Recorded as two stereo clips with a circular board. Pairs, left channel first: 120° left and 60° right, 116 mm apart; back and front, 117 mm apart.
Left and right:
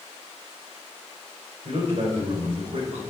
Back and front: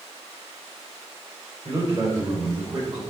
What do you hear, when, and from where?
1.6 s a man speaking: 45° right, 3 m